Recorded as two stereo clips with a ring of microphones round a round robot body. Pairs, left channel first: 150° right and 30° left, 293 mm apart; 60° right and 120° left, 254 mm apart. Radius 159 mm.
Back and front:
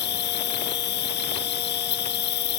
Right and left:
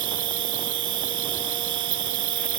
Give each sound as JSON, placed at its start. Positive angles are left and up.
{"t": 0.0, "sound": "an insect", "azimuth_deg": 150}